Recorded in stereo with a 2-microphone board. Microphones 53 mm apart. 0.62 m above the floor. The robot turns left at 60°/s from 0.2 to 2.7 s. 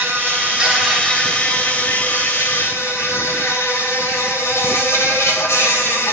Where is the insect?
140° right, 2 m; by 6.2 s 70° left, 2 m.